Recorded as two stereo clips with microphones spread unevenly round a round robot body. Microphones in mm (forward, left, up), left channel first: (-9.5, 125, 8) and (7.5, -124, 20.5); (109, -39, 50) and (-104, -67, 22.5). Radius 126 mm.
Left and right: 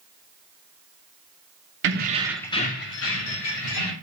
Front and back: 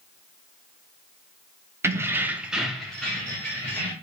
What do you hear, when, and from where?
1.8 s keys jangling: 105° right, 0.7 m; by 3.9 s 95° left, 1.6 m